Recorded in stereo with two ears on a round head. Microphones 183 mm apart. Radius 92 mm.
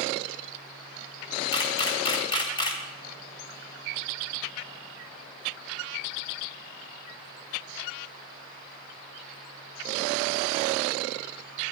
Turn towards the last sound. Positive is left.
turn(degrees=20)  # may be behind; listen again after turning